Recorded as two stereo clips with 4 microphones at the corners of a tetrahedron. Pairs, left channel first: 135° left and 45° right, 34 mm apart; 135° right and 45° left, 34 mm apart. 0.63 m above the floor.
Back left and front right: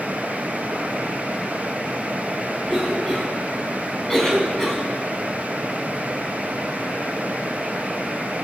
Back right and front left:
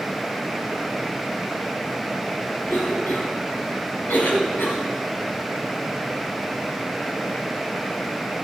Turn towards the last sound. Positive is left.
turn(degrees=-145)